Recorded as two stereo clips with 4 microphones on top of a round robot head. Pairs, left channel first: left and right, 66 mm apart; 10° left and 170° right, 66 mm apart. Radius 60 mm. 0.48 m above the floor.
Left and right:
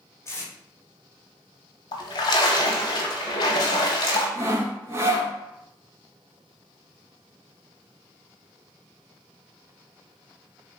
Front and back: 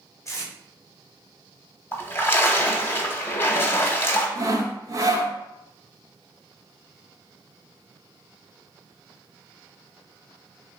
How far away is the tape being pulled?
About 1.1 m.